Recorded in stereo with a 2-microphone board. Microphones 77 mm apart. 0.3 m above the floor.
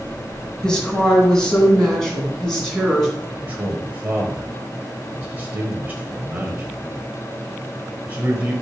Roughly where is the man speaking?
Right.